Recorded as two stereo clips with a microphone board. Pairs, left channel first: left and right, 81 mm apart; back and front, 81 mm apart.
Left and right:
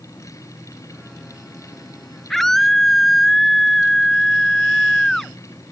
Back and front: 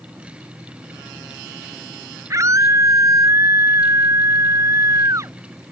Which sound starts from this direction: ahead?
A scream, at 2.3 s.